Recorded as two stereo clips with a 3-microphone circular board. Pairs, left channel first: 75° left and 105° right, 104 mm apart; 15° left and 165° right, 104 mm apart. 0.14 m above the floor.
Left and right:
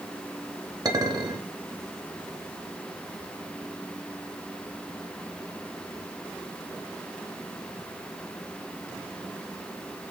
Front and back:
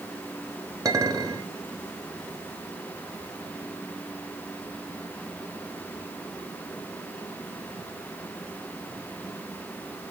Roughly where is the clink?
Behind right.